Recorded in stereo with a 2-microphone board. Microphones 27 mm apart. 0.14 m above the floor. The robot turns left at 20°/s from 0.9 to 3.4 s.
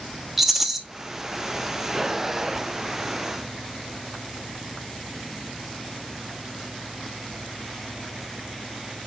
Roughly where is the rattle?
Centre.